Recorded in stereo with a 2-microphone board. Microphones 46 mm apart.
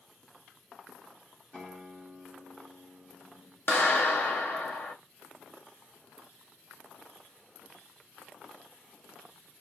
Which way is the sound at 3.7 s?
50° left (ahead or behind).